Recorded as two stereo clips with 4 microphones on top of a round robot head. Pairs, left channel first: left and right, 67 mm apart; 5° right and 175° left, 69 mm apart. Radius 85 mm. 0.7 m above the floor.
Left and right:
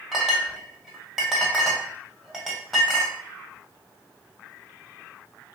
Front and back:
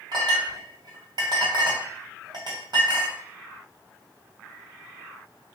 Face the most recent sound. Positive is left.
turn(degrees=-175)